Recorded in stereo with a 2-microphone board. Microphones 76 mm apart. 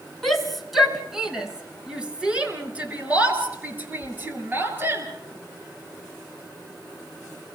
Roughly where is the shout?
Centre.